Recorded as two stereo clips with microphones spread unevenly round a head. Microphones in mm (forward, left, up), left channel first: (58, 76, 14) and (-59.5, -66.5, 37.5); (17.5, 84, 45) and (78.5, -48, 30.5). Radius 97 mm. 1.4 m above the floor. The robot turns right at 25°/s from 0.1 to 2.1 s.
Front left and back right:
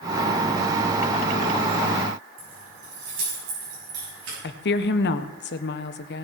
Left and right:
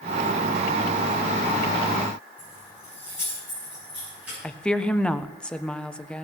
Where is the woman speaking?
30° left, 1.0 m.